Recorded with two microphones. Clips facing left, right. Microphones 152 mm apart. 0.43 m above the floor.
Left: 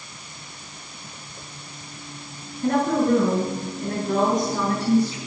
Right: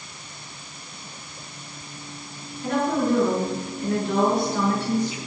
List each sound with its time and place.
2.6 s a woman speaking: 55° left (ahead or behind), 6 m; by 5.2 s 40° left (ahead or behind), 5 m